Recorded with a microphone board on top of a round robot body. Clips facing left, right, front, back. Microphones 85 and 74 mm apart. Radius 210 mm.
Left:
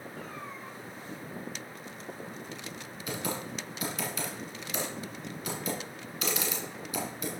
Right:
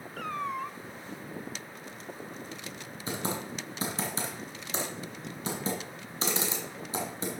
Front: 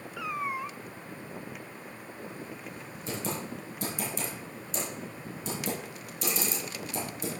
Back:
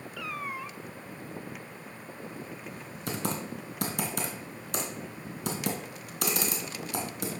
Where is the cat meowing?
70° right, 0.6 m.